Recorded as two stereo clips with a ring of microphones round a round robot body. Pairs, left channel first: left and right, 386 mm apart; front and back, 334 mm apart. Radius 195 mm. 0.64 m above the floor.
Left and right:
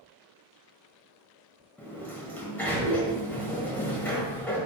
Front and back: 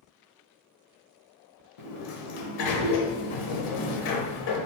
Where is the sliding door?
5° left, 0.8 m.